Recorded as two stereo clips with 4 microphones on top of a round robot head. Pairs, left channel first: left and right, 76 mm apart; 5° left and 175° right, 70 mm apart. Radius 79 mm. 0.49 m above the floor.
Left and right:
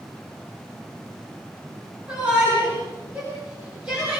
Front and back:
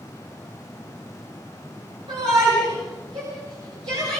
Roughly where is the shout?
Behind.